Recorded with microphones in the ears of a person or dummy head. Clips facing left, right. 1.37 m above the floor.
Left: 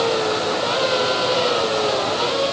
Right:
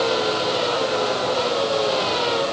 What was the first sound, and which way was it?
Only background noise.